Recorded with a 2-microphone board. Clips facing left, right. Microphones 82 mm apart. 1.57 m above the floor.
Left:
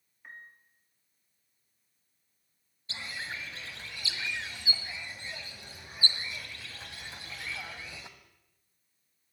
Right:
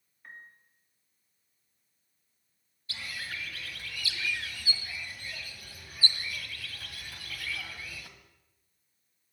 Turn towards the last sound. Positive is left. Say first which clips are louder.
# left 1 dB
turn(degrees=25)  # may be behind; listen again after turning